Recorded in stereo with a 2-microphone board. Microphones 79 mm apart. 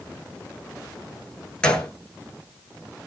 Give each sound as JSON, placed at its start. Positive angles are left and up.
{"t": 1.6, "sound": "a gunshot", "side_deg": 10, "distance_m": 1.0}